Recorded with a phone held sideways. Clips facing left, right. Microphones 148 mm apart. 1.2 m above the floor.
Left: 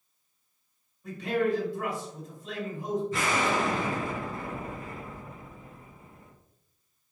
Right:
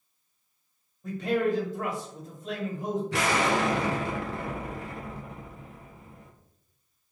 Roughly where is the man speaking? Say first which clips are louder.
Right 1 dB; right.